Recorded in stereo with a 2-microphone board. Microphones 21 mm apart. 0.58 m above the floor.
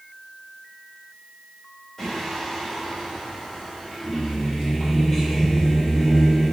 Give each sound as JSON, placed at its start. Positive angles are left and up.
{"t": 2.0, "sound": "singing", "side_deg": 0, "distance_m": 1.5}